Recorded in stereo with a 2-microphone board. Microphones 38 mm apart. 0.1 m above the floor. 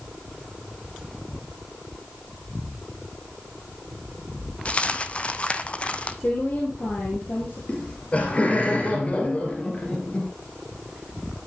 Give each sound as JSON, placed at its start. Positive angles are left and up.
{"t": 4.7, "sound": "a dropped coin", "side_deg": 35, "distance_m": 0.6}
{"t": 6.2, "sound": "a woman speaking", "side_deg": 55, "distance_m": 2.0}
{"t": 7.7, "sound": "laughter", "side_deg": 35, "distance_m": 1.5}